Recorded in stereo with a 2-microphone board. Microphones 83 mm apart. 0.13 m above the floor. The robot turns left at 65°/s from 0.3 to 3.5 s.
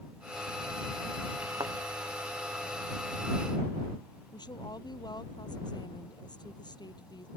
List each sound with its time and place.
1.6 s a thud: 65° right (ahead or behind); by 1.7 s 75° right (ahead or behind)
4.3 s a woman speaking: 60° left (ahead or behind)